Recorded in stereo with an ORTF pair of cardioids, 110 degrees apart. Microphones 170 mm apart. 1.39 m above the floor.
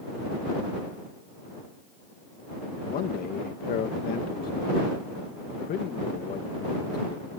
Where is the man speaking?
60° left.